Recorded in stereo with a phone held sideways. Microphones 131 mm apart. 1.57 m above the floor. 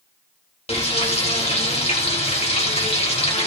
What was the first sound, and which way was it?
Frying, 50° left (ahead or behind).